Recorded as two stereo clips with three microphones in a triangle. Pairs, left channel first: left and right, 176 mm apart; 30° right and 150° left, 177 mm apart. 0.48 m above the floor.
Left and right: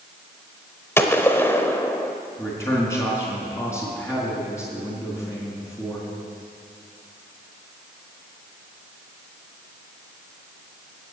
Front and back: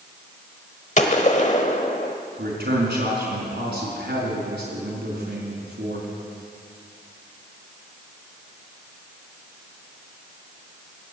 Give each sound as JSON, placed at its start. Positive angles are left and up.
{"t": 1.0, "sound": "a gunshot", "azimuth_deg": 15, "distance_m": 0.9}
{"t": 2.4, "sound": "a man speaking", "azimuth_deg": 165, "distance_m": 4.5}